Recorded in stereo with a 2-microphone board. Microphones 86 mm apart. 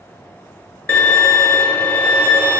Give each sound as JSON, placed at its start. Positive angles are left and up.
{"t": 0.9, "sound": "a violin", "side_deg": 25, "distance_m": 0.6}